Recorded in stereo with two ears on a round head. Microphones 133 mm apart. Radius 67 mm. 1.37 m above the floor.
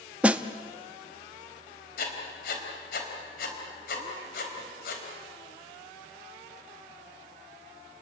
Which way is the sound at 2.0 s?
65° left (ahead or behind).